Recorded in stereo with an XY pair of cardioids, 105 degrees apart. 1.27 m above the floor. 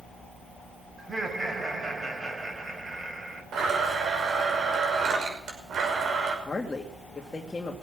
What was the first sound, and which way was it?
Laughter, 25° right.